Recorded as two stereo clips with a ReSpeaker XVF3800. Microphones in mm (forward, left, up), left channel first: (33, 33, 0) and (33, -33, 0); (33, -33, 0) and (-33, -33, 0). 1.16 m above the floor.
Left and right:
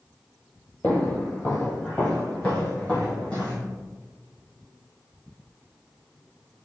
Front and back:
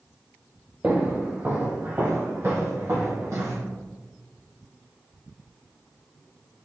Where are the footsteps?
120° left, 1.2 m; by 3.6 s 165° left, 2 m.